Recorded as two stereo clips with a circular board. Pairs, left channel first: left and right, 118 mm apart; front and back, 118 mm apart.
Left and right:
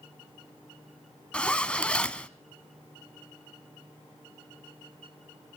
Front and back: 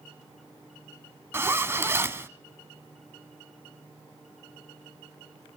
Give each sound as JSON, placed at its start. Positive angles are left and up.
{"t": 1.3, "sound": "a zipper", "azimuth_deg": 155, "distance_m": 1.0}